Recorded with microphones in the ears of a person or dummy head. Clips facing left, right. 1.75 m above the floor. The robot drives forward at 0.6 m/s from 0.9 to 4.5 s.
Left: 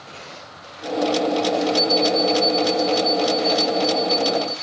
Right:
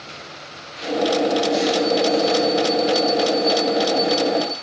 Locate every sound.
1.8 s an alarm clock: 55° left (ahead or behind), 1.8 m; by 4.5 s 30° left (ahead or behind), 3 m